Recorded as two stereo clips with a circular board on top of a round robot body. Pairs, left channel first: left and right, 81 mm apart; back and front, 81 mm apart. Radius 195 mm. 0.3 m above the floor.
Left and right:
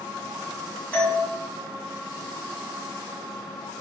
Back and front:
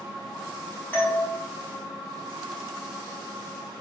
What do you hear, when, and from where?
0.9 s a doorbell: 150° left, 1.7 m